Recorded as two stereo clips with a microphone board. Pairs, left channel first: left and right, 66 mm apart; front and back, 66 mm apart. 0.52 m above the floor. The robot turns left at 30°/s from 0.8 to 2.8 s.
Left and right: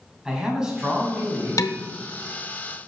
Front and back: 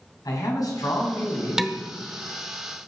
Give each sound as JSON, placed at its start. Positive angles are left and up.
{"t": 0.2, "sound": "a man speaking", "azimuth_deg": -10, "distance_m": 3.5}
{"t": 1.6, "sound": "dishes clattering", "azimuth_deg": 100, "distance_m": 0.7}